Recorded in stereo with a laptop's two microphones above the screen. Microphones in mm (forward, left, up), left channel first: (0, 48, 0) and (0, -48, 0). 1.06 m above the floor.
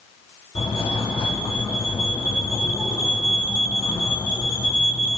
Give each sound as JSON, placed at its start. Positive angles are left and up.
{"t": 0.6, "sound": "a fire alarm", "side_deg": 65, "distance_m": 4.0}